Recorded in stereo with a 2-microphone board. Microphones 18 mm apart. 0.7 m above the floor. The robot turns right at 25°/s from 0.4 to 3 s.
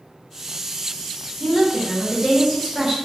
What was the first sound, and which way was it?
A woman speaking, 25° right (ahead or behind).